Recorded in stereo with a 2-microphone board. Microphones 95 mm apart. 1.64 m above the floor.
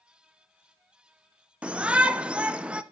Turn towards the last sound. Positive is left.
turn(degrees=-10)  # may be behind; listen again after turning